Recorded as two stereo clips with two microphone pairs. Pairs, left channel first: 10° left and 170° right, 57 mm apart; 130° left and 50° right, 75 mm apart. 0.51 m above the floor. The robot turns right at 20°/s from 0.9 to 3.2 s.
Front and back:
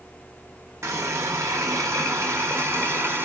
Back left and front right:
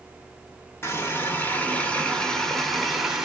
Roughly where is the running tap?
Behind.